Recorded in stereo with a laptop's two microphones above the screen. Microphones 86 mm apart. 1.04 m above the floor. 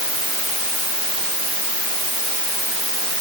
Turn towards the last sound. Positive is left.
No sound to turn to.